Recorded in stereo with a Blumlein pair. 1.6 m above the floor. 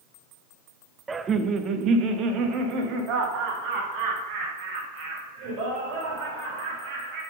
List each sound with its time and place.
1.1 s laughter: 10° right, 0.9 m; by 7.2 s 40° right, 10 m